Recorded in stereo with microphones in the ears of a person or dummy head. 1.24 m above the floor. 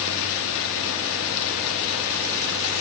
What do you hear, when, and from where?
0.0 s running water: 75° left (ahead or behind), 1.4 m